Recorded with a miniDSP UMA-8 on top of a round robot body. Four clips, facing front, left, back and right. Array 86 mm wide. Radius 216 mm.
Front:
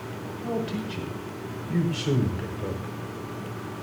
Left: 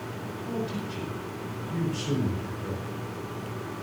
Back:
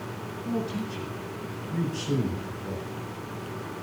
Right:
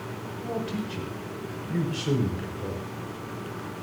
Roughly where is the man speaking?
Ahead right.